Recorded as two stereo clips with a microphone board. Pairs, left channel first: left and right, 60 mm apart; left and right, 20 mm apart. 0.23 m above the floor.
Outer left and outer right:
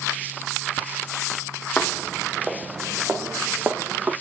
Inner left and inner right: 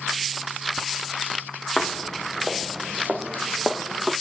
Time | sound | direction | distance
1.8 | footsteps | 20° left (ahead or behind) | 1.3 m